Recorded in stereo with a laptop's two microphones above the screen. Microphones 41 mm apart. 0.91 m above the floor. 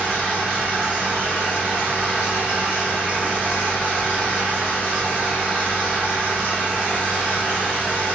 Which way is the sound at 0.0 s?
30° left (ahead or behind).